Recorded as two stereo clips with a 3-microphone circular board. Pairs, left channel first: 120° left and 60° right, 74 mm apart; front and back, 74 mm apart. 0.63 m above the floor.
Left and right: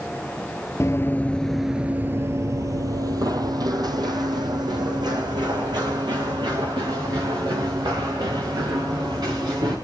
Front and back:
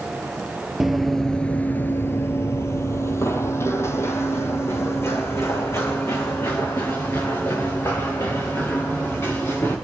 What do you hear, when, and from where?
0.8 s running footsteps: 95° left, 0.8 m; by 9.8 s 55° right, 5.5 m